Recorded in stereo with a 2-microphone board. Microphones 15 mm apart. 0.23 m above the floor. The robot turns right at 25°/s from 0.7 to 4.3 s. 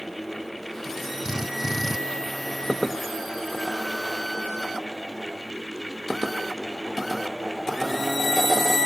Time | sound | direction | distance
1.2 | a drill | 40° right (ahead or behind) | ?